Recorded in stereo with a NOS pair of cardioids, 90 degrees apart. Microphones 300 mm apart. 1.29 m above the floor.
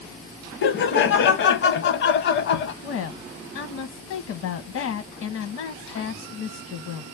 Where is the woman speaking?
65° left, 0.8 m.